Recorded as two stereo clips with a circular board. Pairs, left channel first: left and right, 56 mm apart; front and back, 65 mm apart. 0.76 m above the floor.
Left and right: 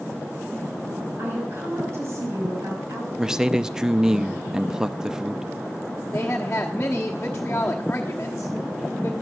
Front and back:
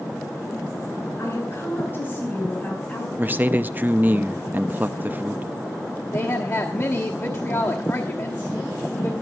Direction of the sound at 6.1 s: 35° left.